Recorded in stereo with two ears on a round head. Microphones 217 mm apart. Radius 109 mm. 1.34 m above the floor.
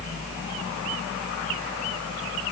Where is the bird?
No bird in this recording.